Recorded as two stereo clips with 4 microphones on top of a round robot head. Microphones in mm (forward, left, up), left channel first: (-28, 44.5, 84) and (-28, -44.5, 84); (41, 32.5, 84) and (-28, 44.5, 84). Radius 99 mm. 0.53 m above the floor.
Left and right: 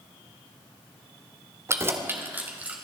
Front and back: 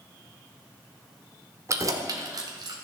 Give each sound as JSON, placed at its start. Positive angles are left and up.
{"t": 1.7, "sound": "keys jangling", "azimuth_deg": -145, "distance_m": 1.4}